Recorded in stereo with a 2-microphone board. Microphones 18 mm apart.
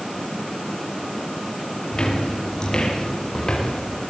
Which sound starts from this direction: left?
Footsteps, at 1.9 s.